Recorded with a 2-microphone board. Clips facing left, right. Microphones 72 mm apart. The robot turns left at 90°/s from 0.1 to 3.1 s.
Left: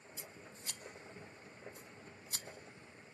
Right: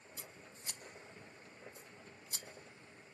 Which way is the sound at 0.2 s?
60° right (ahead or behind).